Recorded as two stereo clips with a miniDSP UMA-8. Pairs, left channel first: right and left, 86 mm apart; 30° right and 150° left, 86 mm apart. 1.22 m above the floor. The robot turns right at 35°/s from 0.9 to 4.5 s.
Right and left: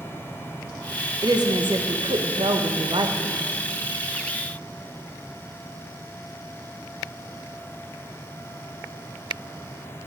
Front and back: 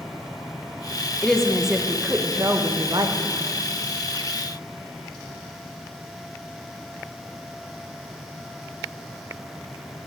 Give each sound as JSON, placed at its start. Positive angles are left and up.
{"t": 1.2, "sound": "a woman speaking", "azimuth_deg": 50, "distance_m": 1.4}